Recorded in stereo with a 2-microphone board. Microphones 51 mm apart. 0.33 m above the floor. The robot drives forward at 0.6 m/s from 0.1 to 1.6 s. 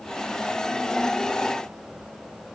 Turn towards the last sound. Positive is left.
No sound to turn to.